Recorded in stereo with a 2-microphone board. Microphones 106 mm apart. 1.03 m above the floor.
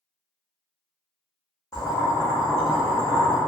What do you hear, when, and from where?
1.7 s boiling: 30° left (ahead or behind), 0.8 m